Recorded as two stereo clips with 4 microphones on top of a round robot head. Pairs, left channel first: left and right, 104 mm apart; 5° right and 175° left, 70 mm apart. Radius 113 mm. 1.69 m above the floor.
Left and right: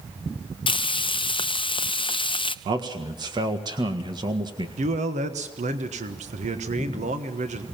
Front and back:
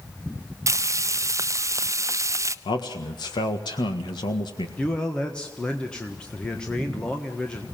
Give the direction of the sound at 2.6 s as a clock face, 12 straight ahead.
1 o'clock.